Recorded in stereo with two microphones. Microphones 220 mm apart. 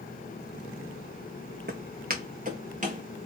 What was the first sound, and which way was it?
Footsteps, 45° right (ahead or behind).